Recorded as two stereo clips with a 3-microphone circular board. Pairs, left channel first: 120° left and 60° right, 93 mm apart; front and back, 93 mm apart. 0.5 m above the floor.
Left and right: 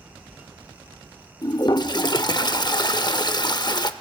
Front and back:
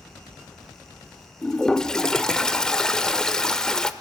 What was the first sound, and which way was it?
A toilet flushing, 80° left.